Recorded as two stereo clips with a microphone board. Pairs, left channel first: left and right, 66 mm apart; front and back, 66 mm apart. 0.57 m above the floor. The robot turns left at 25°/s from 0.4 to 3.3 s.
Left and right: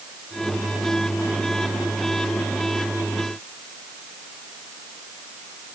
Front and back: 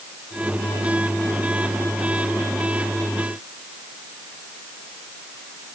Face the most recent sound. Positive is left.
No sound to turn to.